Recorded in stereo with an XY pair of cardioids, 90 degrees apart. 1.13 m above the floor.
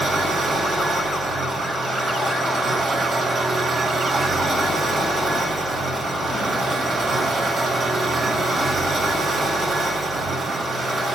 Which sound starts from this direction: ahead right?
An engine running, at 0.0 s.